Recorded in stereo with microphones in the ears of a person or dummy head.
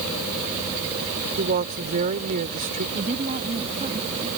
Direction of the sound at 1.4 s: 45° right (ahead or behind).